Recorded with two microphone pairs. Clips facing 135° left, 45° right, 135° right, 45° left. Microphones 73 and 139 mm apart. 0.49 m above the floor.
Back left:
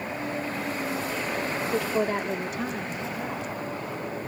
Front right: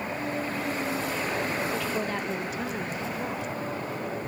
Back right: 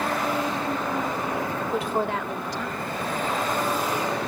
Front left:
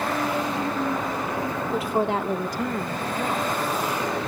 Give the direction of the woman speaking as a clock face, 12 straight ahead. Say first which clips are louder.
Back left 4 dB, front left 3 dB; 7 o'clock.